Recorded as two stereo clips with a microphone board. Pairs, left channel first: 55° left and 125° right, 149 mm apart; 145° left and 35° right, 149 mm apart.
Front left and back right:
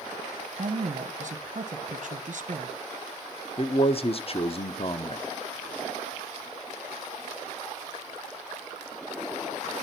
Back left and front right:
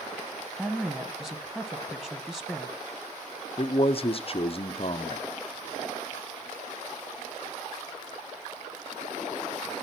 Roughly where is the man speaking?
Left.